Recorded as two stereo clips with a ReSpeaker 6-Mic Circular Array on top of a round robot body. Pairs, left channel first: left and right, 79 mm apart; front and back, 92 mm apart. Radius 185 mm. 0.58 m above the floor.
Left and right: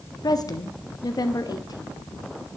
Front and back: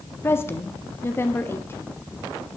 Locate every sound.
0.2 s a woman speaking: 60° left, 1.8 m